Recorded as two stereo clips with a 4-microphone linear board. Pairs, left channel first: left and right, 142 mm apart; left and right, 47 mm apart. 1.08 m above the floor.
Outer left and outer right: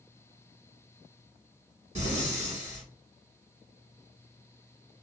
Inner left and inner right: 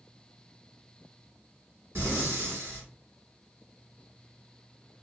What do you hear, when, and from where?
1.9 s breathing: 55° right (ahead or behind), 1.7 m